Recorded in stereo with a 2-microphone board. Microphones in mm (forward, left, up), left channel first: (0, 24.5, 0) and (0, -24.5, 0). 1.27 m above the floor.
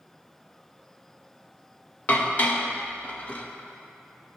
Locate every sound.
2.1 s dishes clattering: 35° left (ahead or behind), 0.8 m